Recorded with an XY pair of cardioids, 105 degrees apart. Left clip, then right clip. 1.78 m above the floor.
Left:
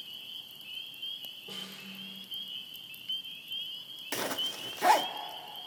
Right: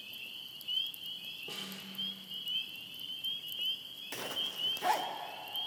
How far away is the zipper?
About 0.7 m.